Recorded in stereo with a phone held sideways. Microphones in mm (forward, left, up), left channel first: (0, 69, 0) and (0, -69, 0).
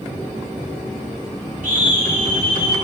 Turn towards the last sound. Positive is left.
turn(degrees=-80)